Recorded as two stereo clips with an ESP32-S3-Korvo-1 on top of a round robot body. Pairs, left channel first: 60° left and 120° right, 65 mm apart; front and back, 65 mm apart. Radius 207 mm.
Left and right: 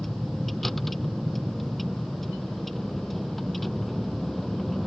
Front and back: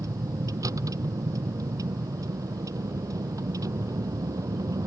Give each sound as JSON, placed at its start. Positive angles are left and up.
{"t": 0.0, "sound": "a vehicle", "azimuth_deg": 145}